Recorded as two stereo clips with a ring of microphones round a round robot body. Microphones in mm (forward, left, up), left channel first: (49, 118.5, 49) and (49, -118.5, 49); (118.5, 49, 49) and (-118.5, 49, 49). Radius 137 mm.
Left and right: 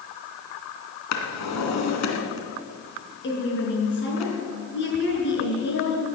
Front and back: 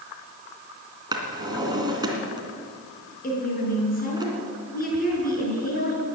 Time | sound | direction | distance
1.1 | a drawer | 110° left | 2.5 m
3.2 | a woman speaking | 50° left | 6.5 m